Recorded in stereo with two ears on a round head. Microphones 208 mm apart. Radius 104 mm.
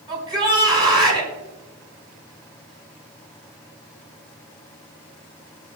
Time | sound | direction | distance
0.1 | a shout | 20° right (ahead or behind) | 4.5 m